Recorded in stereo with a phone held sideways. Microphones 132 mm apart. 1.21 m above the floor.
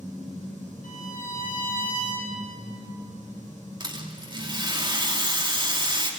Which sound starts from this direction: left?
A violin, at 0.8 s.